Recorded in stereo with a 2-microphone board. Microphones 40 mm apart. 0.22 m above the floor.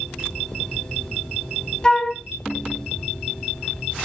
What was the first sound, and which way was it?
A flute, 20° left (ahead or behind).